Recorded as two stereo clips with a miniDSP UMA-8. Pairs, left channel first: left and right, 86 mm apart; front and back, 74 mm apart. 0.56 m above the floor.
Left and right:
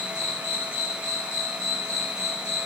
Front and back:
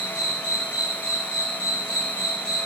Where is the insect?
95° left, 1.6 m.